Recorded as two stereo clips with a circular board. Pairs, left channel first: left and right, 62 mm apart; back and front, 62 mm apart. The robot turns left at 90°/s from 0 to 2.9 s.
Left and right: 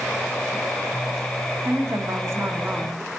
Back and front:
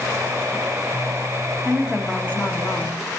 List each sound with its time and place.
1.6 s a woman speaking: 55° right, 2.5 m; by 3.0 s 165° right, 2.5 m